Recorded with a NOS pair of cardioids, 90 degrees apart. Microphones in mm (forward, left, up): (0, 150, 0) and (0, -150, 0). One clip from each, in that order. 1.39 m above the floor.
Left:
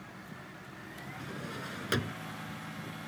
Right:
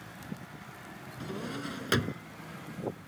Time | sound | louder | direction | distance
1.2 | a drawer | right 4 dB | 20° right | ?